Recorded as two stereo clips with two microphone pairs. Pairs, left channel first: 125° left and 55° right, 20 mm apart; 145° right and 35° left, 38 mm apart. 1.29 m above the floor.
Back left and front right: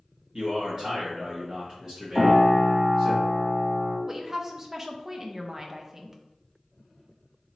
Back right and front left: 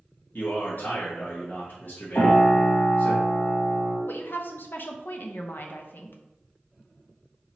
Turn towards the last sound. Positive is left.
turn(degrees=-130)